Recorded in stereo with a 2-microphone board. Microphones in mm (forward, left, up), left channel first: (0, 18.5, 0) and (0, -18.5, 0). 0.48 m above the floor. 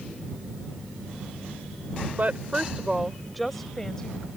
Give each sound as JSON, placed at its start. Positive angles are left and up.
{"t": 2.2, "sound": "a woman speaking", "side_deg": -45}